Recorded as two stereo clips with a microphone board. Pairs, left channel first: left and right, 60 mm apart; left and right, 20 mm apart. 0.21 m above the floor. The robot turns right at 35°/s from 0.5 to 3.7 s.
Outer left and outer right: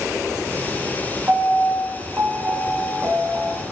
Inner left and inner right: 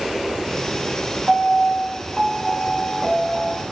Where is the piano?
135° right, 0.8 m; by 3.6 s 50° right, 0.8 m.